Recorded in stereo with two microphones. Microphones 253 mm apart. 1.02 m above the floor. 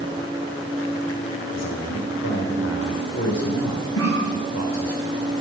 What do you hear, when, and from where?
1.5 s a man speaking: 85° left, 3.5 m
4.0 s a cough: 75° left (ahead or behind), 6.5 m